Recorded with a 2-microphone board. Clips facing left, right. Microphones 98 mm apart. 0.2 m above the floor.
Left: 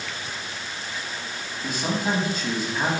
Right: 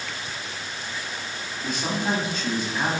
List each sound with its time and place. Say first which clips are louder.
1.6 s a man speaking: left 1 dB; 5° left (ahead or behind), 1.0 m